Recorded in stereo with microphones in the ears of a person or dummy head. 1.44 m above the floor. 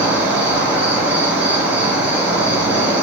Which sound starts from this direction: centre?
An insect, at 0.0 s.